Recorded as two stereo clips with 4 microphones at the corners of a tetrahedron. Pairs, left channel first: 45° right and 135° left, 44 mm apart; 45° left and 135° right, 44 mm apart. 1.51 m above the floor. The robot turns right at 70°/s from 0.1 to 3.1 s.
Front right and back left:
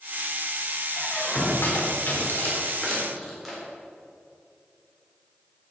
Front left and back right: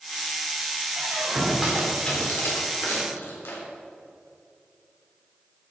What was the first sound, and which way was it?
A squeak, 110° right.